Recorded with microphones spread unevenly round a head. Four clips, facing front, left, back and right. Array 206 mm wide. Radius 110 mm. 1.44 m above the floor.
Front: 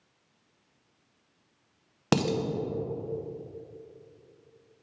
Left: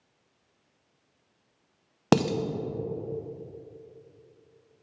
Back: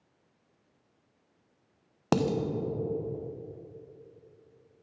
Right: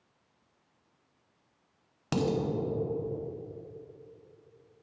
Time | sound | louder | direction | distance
2.1 | dishes clattering | left 5 dB, even | 65° left | 0.5 m